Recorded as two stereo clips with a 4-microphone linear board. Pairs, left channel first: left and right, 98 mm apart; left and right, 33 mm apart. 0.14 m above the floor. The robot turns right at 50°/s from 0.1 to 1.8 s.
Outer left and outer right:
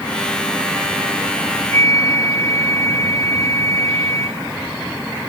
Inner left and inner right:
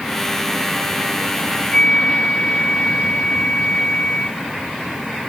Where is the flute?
25° left (ahead or behind); by 4.4 s 30° left (ahead or behind).